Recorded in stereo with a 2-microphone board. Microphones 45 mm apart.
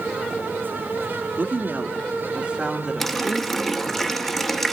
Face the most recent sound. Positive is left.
turn(degrees=5)  # may be behind; listen again after turning